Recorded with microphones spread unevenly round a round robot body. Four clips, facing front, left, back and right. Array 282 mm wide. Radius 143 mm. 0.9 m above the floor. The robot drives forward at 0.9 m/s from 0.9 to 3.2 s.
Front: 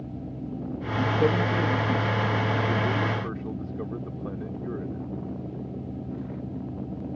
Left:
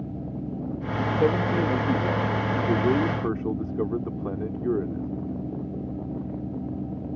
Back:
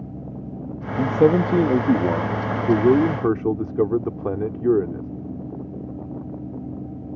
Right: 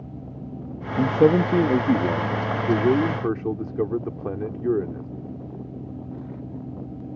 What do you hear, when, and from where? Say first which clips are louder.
1.0 s a man speaking: right 6 dB, back 7 dB; 125° right; by 5.1 s 160° right